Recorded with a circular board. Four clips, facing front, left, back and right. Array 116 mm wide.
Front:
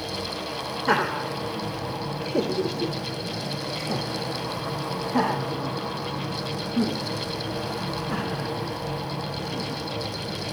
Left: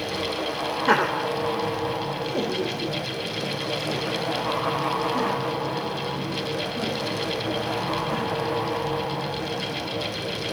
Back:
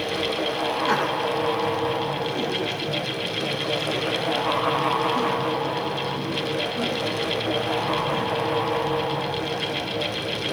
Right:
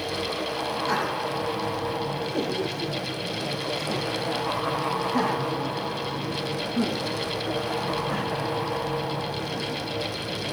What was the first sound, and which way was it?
Laughter, 70° left.